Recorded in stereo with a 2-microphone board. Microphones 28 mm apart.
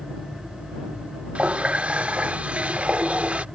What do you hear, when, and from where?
1.4 s a running tap: 45° right (ahead or behind)